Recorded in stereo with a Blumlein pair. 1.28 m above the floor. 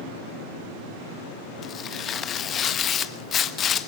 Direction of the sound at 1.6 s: 25° left.